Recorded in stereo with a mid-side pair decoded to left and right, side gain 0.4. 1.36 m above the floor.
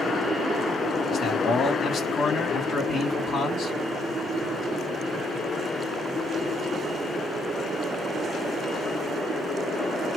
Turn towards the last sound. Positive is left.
turn(degrees=70)